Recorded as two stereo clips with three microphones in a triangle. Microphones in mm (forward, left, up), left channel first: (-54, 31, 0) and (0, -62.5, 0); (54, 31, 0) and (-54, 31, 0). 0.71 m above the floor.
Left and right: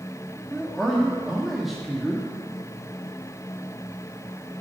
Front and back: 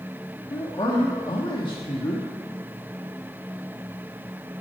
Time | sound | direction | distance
0.5 | a man speaking | 30° left | 1.3 m